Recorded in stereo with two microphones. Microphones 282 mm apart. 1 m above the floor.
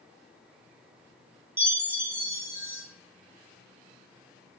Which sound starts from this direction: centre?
A chime, at 1.6 s.